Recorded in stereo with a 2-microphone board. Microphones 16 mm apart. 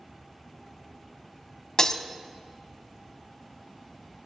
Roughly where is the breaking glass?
Left.